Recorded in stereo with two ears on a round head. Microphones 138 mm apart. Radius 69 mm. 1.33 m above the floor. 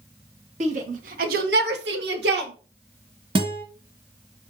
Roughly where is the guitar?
Right.